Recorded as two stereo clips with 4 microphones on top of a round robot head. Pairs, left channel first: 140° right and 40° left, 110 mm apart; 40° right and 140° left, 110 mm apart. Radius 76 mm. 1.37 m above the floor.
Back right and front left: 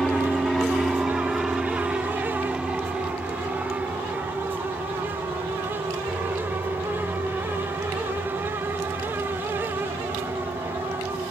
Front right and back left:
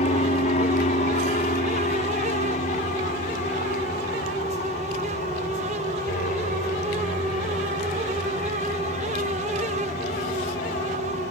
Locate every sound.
0.0 s an aircraft: 55° right; by 11.3 s 30° right